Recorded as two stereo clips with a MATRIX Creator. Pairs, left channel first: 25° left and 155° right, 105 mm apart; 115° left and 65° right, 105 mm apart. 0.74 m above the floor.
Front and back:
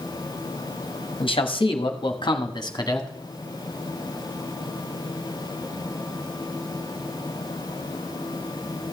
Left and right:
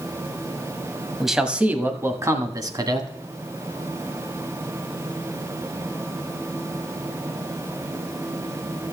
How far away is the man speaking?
About 1.1 m.